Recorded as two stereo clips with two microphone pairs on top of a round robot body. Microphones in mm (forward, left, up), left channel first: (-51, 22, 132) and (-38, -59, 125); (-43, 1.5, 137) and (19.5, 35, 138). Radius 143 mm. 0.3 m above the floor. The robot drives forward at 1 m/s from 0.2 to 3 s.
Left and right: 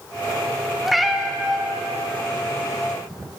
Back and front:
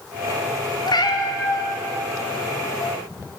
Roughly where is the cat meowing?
Behind.